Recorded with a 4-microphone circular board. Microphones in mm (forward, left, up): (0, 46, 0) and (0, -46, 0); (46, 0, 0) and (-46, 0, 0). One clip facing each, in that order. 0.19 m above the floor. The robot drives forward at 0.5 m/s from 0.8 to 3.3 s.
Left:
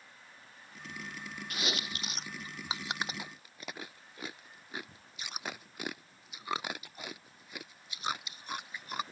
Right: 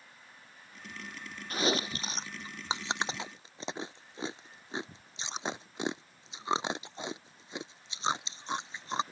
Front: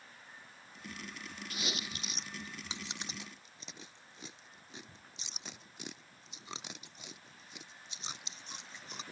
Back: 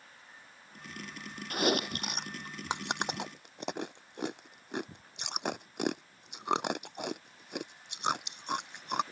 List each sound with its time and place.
1.5 s chewing: 145° right; by 9.0 s 155° right